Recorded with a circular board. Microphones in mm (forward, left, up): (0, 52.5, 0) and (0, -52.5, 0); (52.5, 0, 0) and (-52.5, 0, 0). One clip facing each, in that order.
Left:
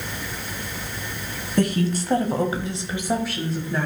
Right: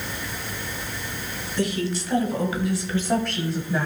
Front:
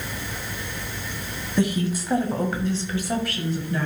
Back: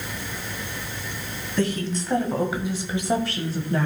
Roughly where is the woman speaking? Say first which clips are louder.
Left 4 dB, front 2 dB; left.